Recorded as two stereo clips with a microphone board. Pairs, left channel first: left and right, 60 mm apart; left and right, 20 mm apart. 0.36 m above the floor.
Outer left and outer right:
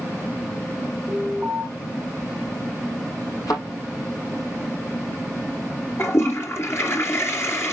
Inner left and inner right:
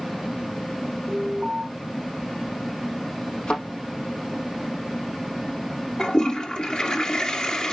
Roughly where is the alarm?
Centre.